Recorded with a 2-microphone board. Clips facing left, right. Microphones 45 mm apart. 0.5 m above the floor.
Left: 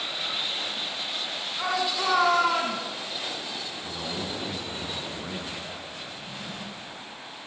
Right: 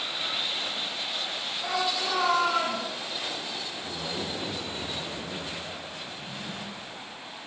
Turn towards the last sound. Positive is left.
turn(degrees=-15)  # may be behind; listen again after turning